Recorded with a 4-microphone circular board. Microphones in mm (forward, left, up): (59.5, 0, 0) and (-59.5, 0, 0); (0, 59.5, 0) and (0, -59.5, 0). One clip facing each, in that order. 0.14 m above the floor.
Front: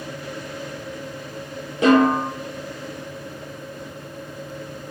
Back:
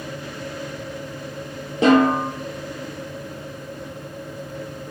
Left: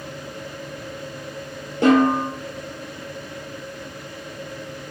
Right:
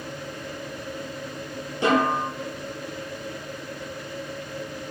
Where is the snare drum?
125° left, 1.8 m.